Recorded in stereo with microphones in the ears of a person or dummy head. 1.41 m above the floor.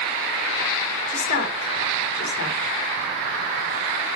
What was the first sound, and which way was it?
A woman speaking, 40° left (ahead or behind).